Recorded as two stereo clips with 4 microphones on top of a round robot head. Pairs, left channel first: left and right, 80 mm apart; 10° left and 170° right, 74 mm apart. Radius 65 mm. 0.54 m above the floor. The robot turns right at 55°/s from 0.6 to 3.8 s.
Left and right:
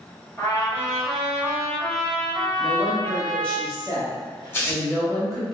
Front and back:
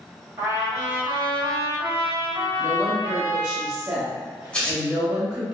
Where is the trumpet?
145° left, 1.6 m; by 3.6 s 50° right, 1.6 m.